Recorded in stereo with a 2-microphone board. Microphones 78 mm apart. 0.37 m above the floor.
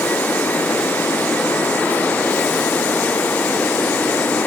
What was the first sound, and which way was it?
Only background noise.